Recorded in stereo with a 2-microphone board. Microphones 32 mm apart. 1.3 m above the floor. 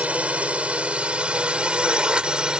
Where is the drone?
40° right (ahead or behind); by 2.6 s 25° right (ahead or behind).